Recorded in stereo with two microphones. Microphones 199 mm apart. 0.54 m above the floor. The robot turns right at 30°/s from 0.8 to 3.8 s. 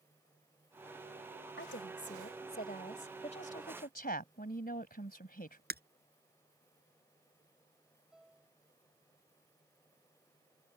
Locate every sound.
1.6 s a woman speaking: 95° left; by 3.1 s 145° left
3.2 s a woman speaking: 30° left (ahead or behind); by 5.6 s 50° left (ahead or behind)
5.7 s breaking glass: 55° right (ahead or behind)
8.1 s a piano: centre (ahead or behind)